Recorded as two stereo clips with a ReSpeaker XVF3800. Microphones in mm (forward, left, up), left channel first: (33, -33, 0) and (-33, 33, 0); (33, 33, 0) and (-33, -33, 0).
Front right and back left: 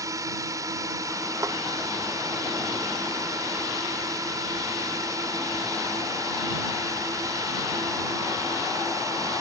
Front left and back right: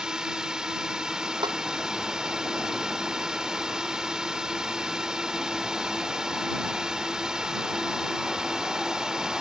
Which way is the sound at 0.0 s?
150° left.